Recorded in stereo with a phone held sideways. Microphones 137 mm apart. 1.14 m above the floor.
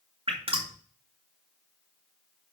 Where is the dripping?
45° right (ahead or behind), 2 m.